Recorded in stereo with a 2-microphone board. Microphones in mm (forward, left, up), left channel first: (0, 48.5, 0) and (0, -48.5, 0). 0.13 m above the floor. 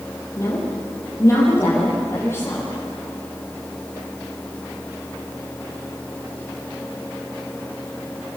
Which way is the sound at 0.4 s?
35° left (ahead or behind).